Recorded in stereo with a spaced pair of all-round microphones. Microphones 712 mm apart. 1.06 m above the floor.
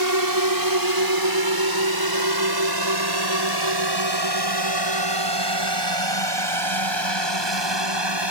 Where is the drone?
25° right (ahead or behind); by 8.3 s 35° right (ahead or behind).